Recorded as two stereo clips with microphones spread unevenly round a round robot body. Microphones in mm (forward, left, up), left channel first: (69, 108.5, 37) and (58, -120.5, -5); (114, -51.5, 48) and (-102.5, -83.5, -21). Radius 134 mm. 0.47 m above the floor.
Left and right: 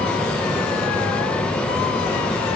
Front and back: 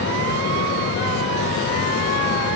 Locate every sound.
Only background noise.